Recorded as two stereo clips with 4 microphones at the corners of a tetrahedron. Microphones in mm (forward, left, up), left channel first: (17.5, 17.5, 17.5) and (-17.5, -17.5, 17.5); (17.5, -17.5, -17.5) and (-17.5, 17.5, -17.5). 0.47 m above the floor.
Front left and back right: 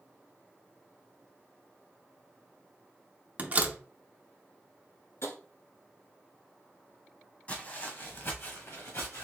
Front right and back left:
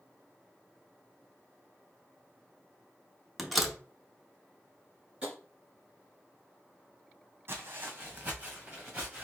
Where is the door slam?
140° right, 0.7 m.